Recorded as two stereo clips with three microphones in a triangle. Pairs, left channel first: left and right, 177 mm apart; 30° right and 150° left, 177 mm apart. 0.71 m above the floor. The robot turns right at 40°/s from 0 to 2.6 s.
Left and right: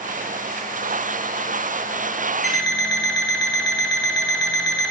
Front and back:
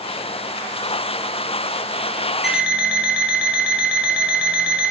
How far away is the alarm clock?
About 1.4 m.